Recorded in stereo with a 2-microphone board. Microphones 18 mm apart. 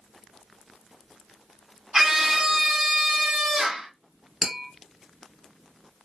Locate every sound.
1.9 s a scream: 20° right (ahead or behind), 1.8 m
4.4 s tapping: 5° right (ahead or behind), 3 m